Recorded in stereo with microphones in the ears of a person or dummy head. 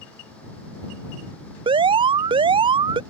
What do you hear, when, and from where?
1.7 s an alarm: 30° right (ahead or behind)